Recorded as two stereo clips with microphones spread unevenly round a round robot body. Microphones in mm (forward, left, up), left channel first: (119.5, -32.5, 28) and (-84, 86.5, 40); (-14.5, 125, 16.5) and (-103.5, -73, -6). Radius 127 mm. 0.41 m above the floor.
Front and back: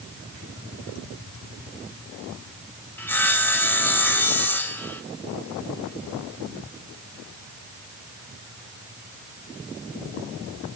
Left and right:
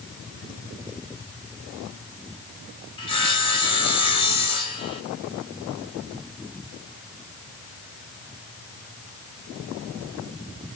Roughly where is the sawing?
Ahead left.